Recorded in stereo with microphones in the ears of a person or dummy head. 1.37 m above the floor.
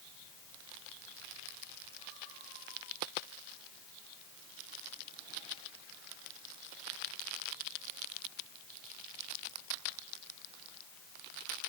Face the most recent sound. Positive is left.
No sound to turn to.